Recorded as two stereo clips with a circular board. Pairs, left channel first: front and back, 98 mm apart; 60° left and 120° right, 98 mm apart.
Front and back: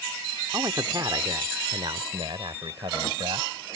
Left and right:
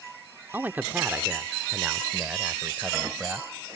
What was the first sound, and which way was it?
A man speaking, 175° right.